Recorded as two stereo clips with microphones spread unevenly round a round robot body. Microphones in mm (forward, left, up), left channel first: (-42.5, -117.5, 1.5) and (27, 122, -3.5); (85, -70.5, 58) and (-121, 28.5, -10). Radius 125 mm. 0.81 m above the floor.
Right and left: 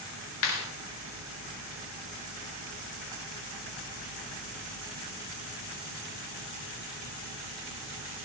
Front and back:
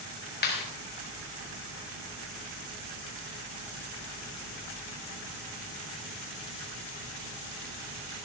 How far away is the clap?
About 4 m.